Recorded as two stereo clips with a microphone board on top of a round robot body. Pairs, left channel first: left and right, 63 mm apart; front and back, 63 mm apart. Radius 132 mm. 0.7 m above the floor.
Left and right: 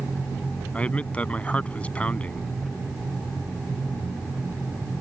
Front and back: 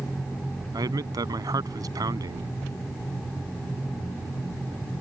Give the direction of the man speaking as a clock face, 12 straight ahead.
7 o'clock.